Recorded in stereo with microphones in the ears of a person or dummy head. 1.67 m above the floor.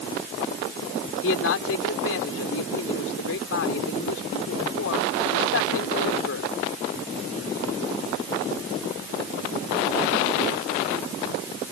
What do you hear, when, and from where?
1.2 s a man speaking: 85° left